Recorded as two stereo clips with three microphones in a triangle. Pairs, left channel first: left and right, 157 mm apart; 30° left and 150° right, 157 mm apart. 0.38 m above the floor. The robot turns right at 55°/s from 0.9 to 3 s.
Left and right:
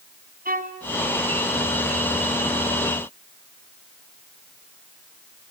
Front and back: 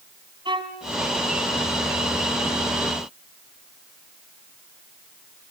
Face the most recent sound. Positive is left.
turn(degrees=25)